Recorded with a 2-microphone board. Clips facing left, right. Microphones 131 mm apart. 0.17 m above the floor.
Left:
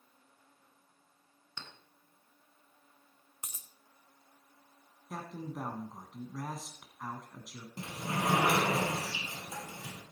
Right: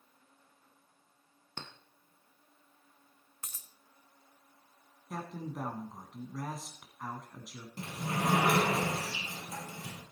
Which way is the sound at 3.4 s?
15° left (ahead or behind).